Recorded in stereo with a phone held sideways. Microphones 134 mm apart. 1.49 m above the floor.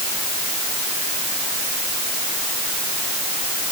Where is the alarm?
I don't hear an alarm.